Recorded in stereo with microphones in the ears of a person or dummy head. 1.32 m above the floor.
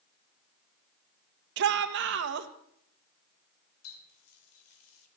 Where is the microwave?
I don't hear a microwave.